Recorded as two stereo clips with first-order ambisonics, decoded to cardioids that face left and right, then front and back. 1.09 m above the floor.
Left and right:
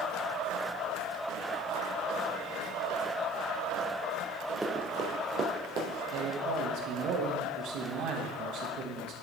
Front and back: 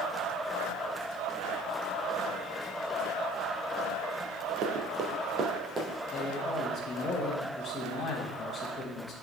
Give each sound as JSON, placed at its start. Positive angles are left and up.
{"t": 4.6, "sound": "running footsteps", "azimuth_deg": -170, "distance_m": 1.5}
{"t": 6.1, "sound": "a man speaking", "azimuth_deg": -70, "distance_m": 1.4}